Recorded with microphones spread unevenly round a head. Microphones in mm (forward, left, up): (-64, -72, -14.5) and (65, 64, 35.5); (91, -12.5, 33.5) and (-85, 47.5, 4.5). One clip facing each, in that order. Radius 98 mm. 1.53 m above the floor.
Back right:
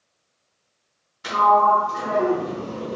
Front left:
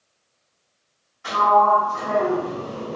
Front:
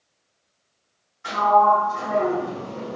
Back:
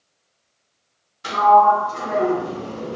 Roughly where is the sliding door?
Behind.